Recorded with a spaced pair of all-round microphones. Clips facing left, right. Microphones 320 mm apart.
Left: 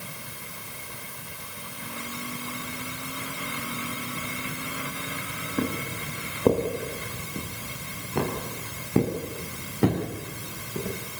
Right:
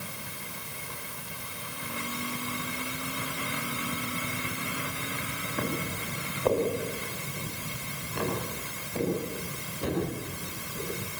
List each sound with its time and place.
5.6 s footsteps: 40° left (ahead or behind), 6.5 m; by 10.9 s 85° left, 9.5 m